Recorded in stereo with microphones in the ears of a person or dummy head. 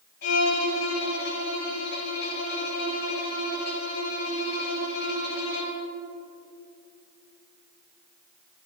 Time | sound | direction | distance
0.2 | a violin | 50° left (ahead or behind) | 1.3 m